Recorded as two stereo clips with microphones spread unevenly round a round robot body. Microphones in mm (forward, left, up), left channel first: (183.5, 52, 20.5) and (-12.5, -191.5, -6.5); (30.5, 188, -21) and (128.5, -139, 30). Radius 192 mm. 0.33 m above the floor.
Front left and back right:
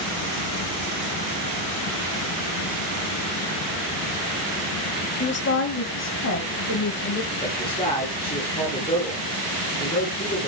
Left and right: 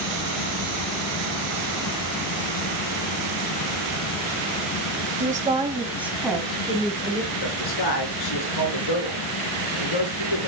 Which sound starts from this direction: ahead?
A woman speaking, at 5.2 s.